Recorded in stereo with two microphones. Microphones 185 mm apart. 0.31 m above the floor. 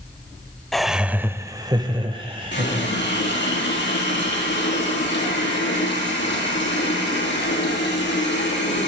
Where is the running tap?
75° left (ahead or behind), 6 m.